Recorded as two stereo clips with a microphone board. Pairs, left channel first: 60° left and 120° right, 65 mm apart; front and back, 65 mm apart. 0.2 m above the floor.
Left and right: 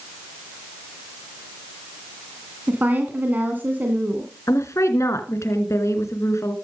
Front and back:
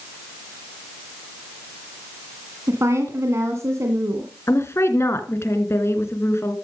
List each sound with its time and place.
2.7 s a woman speaking: 170° right, 2 m
4.5 s a woman speaking: 35° left, 3 m